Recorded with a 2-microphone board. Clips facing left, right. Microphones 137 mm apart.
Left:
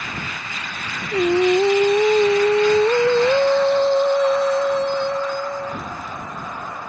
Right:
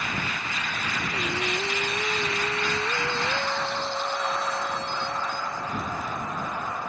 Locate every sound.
1.1 s singing: 65° left (ahead or behind)